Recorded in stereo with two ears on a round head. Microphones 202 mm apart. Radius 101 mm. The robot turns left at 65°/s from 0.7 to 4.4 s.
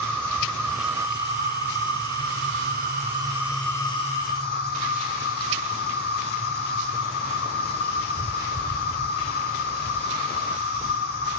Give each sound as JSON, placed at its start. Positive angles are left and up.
{"t": 0.0, "sound": "an insect", "azimuth_deg": 5, "distance_m": 4.0}